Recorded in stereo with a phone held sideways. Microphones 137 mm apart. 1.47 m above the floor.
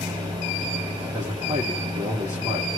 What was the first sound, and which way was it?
A fan, 30° right (ahead or behind).